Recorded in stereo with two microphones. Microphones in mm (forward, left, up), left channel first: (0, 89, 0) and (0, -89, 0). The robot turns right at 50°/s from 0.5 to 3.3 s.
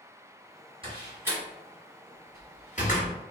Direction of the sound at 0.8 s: 30° right (ahead or behind).